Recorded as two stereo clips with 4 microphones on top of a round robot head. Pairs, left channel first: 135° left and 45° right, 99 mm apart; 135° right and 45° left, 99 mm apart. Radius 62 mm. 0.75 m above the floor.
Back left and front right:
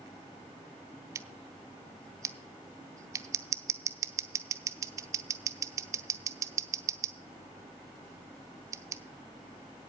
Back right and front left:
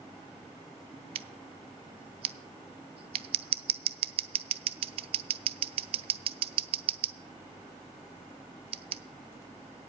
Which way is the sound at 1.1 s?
15° left.